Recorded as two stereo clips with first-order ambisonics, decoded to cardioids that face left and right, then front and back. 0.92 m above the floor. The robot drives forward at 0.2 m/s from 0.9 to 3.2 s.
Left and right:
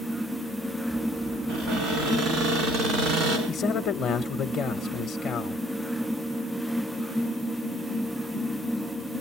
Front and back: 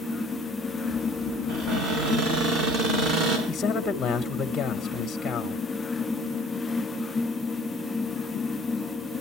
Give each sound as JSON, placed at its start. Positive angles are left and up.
{"t": 1.5, "sound": "a cupboard door", "azimuth_deg": -140, "distance_m": 6.0}
{"t": 3.5, "sound": "a man speaking", "azimuth_deg": 60, "distance_m": 0.7}